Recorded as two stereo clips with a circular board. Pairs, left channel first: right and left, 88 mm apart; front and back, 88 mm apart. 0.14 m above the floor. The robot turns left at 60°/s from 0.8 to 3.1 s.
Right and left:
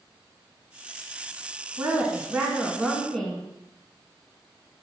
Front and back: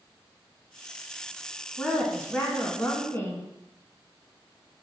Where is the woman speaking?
60° left, 1.7 m; by 3.5 s 20° right, 1.7 m.